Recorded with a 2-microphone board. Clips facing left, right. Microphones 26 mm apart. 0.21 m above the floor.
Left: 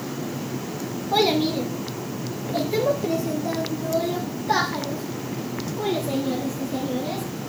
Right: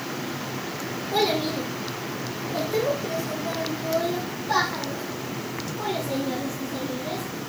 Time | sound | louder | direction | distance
1.1 | a child speaking | left 3 dB | 25° left (ahead or behind) | 1.5 m